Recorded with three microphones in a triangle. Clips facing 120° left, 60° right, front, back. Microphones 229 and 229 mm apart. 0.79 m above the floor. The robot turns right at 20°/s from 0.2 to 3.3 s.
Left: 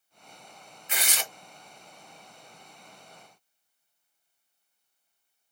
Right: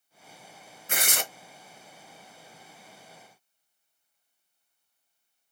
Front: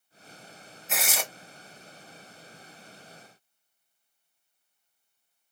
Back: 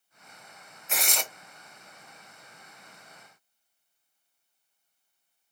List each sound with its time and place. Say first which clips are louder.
0.9 s tearing paper: right 4 dB, front 1 dB; 90° right, 0.7 m; by 1.2 s 85° right, 0.7 m